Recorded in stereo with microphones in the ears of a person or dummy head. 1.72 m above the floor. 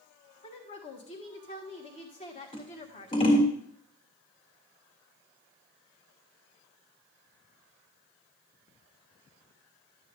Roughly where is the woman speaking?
Left.